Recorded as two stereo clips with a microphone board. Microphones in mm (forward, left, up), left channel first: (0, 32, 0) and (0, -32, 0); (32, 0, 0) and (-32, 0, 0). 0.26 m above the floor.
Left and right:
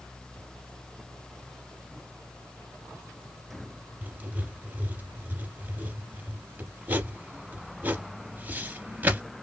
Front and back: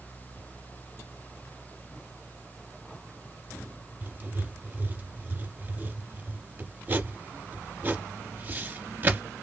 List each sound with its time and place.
4.0 s writing: 140° right, 0.6 m